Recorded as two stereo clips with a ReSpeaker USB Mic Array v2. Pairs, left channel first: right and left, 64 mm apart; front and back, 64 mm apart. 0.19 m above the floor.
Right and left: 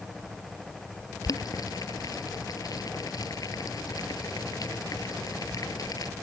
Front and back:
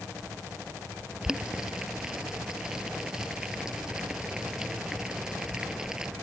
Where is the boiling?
100° right.